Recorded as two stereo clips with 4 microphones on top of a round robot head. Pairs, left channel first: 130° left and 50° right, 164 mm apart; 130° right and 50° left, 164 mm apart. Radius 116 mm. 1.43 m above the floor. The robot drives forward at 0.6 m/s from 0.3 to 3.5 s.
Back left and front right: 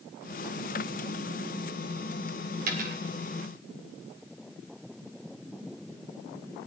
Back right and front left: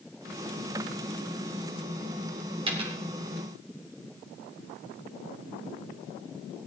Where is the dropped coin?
10° right, 2.5 m.